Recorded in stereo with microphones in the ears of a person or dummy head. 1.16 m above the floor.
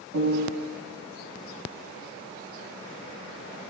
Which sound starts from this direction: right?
A piano, at 0.1 s.